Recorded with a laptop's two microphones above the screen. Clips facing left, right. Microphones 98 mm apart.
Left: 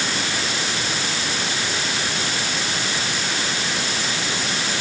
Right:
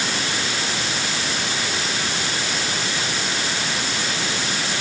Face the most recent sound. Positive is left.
No sound to turn to.